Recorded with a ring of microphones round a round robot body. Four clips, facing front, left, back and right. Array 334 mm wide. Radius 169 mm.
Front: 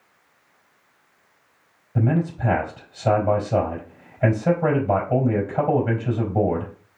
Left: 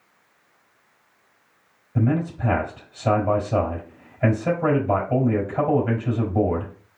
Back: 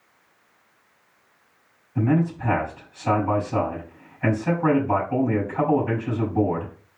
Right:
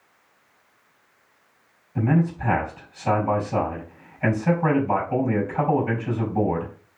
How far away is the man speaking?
About 3.5 m.